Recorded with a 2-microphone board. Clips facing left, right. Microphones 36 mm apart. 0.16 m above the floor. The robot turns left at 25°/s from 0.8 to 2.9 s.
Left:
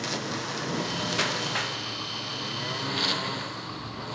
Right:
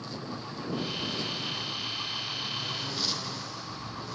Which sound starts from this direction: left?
A lawn mower, at 0.0 s.